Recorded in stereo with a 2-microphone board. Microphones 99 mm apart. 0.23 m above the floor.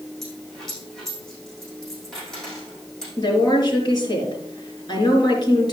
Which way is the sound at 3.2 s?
45° left (ahead or behind).